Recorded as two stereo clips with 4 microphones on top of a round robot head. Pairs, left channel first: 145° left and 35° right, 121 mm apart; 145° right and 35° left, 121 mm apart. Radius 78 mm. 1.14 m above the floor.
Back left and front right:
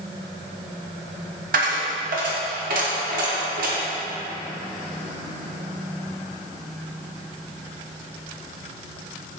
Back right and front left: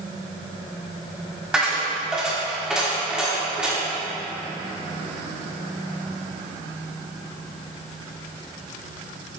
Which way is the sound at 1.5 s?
50° right.